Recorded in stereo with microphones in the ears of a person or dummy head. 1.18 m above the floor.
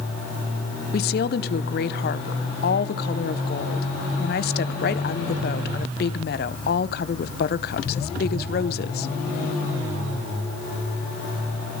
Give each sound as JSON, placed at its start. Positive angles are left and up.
{"t": 0.9, "sound": "a woman speaking", "side_deg": 40, "distance_m": 0.7}